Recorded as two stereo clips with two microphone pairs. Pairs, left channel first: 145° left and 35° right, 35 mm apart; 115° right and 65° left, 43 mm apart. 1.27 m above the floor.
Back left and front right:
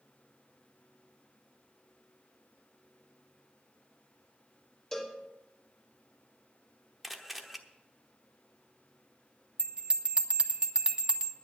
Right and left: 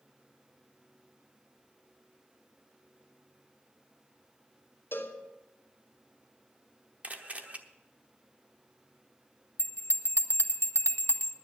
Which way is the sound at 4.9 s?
140° right.